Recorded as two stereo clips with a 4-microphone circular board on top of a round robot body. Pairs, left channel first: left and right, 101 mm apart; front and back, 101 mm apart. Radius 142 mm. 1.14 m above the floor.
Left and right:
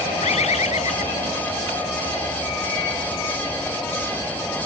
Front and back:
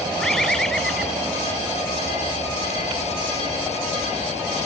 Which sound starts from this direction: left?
A bird, at 0.2 s.